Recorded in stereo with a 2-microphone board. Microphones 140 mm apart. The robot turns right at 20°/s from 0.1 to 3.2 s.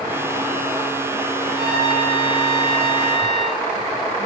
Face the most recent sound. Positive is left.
turn(degrees=-145)